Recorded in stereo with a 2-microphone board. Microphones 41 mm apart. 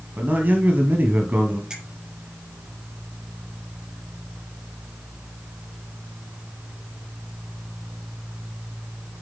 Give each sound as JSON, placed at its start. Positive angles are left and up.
{"t": 0.2, "sound": "a man speaking", "side_deg": -45, "distance_m": 2.5}
{"t": 1.7, "sound": "a finger snap", "side_deg": -20, "distance_m": 4.0}